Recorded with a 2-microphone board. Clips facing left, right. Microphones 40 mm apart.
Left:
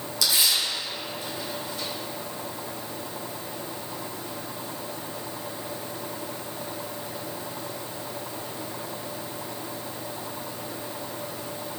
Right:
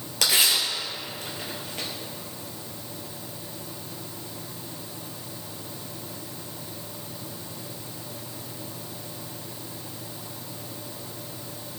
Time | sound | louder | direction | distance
0.2 | tearing paper | right 2 dB | 60° right (ahead or behind) | 3 m